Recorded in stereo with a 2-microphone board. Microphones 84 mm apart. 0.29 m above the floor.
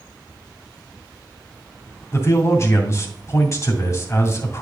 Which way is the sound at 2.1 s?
40° left (ahead or behind).